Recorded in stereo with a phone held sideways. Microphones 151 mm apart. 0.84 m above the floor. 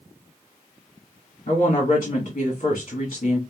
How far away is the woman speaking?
About 2.5 m.